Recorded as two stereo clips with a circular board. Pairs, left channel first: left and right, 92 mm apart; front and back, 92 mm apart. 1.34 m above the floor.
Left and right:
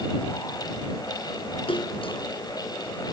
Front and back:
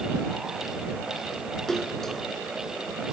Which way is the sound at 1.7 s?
85° left.